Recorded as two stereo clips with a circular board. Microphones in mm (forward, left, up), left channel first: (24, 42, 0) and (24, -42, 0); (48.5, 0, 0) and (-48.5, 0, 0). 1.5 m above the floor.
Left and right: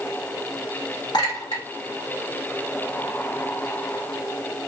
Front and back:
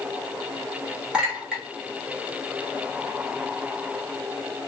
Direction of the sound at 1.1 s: 100° left.